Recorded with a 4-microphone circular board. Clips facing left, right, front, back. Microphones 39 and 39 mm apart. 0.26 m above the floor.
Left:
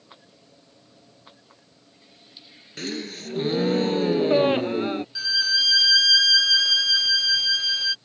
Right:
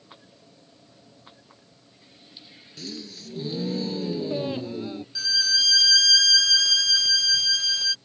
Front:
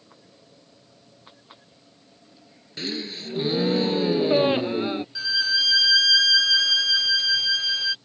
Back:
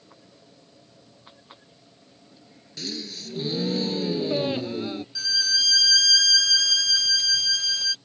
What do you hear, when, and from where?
2.8 s a gasp: 55° left
5.2 s a violin: 30° left